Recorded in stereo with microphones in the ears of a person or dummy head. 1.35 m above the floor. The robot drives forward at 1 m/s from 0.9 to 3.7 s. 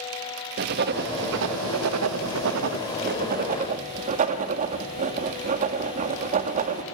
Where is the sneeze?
No sneeze in this recording.